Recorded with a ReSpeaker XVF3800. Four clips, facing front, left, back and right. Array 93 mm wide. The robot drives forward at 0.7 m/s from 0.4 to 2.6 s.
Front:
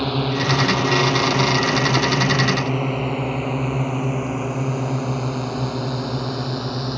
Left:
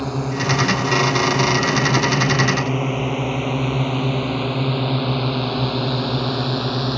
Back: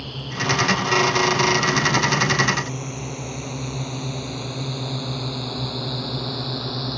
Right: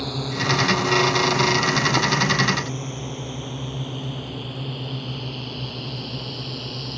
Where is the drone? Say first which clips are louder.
Left 4 dB, front 7 dB; 20° left; by 7.0 s 80° left.